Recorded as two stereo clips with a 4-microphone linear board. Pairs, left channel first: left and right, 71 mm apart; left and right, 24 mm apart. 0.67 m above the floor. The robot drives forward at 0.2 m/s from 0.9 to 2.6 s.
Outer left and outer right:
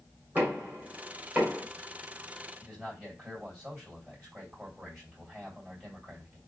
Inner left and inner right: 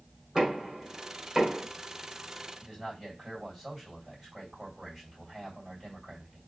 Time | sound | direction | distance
0.3 | knocking | 30° right (ahead or behind) | 1.7 m
2.6 | a man speaking | 20° right (ahead or behind) | 3 m